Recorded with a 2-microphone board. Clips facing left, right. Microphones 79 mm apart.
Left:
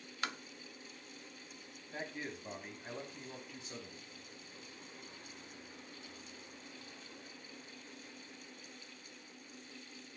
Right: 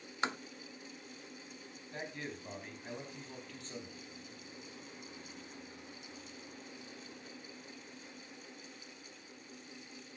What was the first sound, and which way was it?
Tapping, 25° right (ahead or behind).